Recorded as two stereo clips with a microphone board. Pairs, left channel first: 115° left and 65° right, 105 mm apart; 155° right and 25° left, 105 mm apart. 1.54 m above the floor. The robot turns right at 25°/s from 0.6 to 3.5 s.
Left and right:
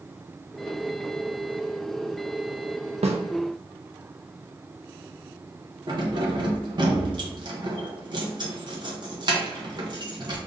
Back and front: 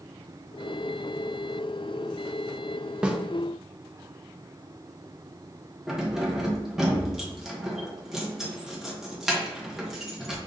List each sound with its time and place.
3.0 s a snare drum: 60° right, 0.6 m; by 3.2 s 55° right, 0.6 m
5.9 s keys jangling: 60° right, 0.8 m